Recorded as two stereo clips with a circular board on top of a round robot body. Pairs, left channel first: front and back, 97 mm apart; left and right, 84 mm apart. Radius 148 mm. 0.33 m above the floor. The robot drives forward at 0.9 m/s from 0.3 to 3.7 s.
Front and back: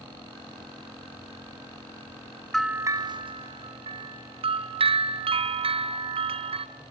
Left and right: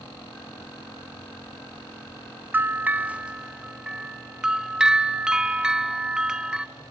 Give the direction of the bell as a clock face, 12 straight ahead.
3 o'clock.